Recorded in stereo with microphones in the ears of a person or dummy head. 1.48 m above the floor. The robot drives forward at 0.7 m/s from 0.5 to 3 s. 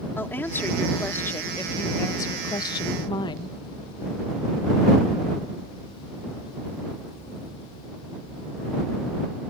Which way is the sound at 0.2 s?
10° left (ahead or behind).